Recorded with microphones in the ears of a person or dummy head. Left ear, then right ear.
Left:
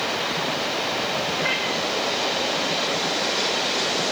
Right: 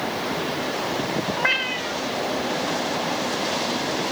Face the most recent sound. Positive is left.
turn(degrees=-35)  # may be behind; listen again after turning